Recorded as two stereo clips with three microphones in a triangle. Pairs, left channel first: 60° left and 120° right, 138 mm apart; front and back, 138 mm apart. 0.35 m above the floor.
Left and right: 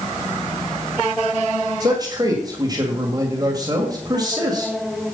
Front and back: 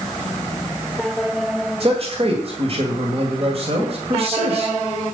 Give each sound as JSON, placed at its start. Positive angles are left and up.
{"t": 1.8, "sound": "a man speaking", "azimuth_deg": -170, "distance_m": 1.8}